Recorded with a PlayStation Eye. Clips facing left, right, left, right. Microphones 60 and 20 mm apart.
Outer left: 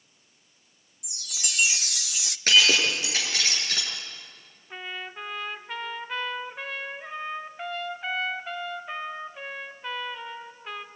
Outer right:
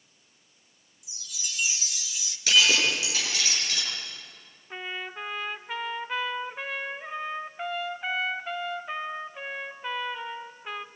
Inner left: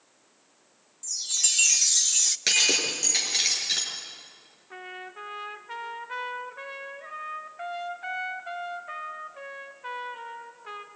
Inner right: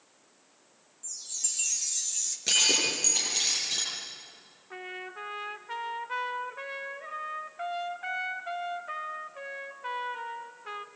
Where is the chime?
70° left (ahead or behind), 0.5 m.